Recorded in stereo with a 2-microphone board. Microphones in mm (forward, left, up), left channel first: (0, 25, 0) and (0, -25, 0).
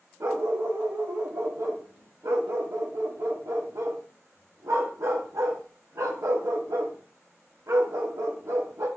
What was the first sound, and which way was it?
A dog barking, 75° right (ahead or behind).